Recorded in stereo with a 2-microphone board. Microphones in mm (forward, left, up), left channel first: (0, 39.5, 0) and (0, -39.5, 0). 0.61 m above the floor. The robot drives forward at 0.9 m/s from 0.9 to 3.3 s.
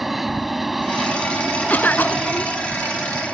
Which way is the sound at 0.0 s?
Centre (ahead or behind).